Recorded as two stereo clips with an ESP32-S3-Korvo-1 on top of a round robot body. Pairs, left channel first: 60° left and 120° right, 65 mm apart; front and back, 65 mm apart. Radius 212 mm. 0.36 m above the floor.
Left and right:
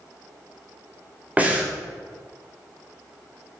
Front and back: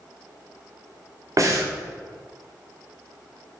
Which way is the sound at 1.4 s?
175° left.